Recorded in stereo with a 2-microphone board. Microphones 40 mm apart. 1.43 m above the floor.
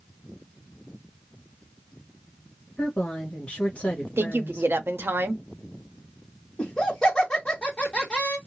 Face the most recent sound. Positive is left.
turn(degrees=20)  # may be behind; listen again after turning